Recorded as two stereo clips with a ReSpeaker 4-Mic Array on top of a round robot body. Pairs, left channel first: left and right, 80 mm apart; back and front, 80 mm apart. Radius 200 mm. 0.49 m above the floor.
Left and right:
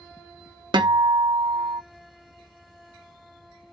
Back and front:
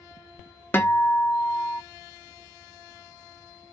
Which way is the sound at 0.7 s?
115° right.